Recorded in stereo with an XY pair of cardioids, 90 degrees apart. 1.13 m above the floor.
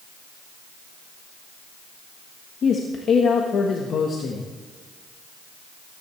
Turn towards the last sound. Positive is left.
turn(degrees=65)